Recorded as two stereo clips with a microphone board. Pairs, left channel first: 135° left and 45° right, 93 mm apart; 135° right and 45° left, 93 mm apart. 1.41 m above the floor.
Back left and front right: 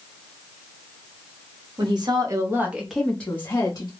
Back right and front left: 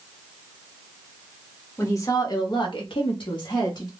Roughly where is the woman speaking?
Right.